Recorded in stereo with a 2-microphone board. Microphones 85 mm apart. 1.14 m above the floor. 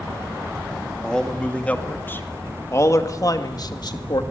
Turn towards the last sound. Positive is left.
turn(degrees=60)  # may be behind; listen again after turning